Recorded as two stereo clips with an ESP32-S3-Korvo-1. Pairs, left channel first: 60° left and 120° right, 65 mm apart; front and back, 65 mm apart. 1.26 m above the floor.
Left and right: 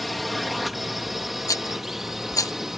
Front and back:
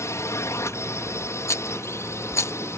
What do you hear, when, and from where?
0.0 s a drone: 30° right; by 2.8 s 35° right
1.5 s a rattle: 35° left